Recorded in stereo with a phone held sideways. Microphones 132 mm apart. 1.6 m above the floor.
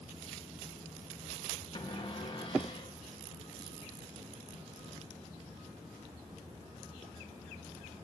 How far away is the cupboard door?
About 3 m.